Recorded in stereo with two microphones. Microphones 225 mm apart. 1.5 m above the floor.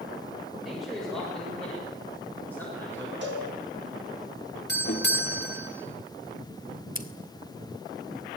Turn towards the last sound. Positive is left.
turn(degrees=-40)  # may be behind; listen again after turning